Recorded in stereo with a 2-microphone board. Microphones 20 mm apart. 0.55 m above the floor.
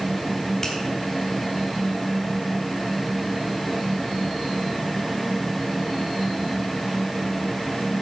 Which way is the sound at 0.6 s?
20° left (ahead or behind).